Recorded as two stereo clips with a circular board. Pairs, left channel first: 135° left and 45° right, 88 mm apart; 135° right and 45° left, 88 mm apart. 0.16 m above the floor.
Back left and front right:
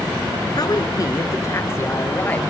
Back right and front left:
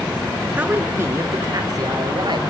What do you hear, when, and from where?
0.6 s a woman speaking: 115° left, 2.5 m; by 2.4 s 65° left, 3.5 m